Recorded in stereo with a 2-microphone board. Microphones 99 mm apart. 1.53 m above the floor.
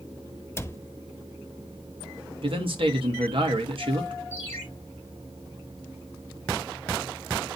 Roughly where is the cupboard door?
Left.